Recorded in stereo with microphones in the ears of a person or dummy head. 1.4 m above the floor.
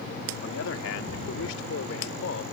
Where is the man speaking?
70° left (ahead or behind); by 2.4 s 75° left (ahead or behind).